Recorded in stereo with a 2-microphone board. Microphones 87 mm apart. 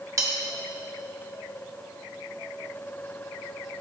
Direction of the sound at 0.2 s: 40° right (ahead or behind).